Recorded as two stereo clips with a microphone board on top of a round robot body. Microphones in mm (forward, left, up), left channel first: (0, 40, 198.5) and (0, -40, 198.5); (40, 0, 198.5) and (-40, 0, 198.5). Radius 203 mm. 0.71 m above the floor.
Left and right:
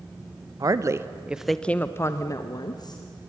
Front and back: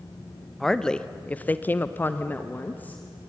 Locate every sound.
0.6 s a woman speaking: 85° right, 1.3 m; by 3.0 s 70° left, 2.0 m